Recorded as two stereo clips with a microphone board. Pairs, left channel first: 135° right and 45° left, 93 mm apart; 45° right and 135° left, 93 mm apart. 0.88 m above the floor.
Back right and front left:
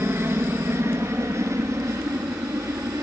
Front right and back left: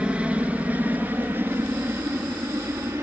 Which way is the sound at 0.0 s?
70° left.